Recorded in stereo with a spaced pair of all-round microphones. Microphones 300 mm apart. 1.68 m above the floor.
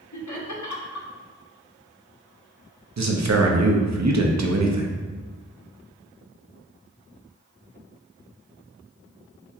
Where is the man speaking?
65° right (ahead or behind), 0.5 m.